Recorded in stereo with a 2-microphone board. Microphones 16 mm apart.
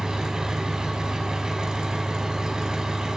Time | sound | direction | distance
0.0 | an engine running | 50° right (ahead or behind) | 4.5 m